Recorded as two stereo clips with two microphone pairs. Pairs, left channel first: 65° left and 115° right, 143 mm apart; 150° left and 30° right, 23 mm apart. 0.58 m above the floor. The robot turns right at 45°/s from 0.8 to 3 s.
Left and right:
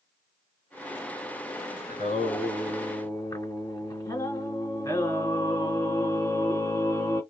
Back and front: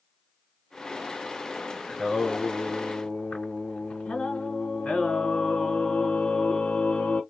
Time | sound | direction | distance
1.9 | singing | 80° left | 1.8 m